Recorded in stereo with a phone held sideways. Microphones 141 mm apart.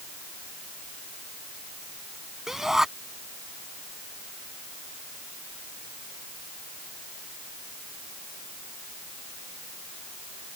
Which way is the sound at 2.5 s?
5° right (ahead or behind).